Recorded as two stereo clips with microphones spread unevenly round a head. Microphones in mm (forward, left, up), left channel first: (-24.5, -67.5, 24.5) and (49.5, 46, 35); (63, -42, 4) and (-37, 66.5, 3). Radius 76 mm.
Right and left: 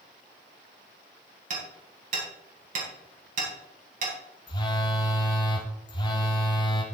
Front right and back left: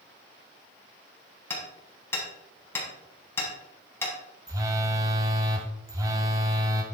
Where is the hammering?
25° left, 4 m.